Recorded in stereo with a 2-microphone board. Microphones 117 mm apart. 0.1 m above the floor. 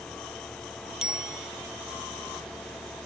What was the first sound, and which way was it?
A bicycle bell, 5° right (ahead or behind).